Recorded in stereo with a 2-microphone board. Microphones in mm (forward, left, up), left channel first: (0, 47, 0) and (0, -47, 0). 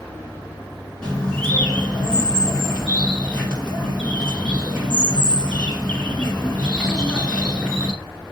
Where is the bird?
10° left (ahead or behind), 2 m.